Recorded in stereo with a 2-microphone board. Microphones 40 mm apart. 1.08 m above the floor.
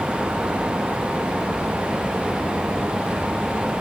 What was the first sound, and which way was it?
Only background noise.